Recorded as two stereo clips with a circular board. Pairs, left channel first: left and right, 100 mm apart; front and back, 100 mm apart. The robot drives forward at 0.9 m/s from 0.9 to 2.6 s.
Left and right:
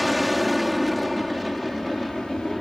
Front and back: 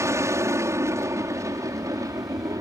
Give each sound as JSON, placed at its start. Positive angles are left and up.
{"t": 0.0, "sound": "an aircraft", "azimuth_deg": 180}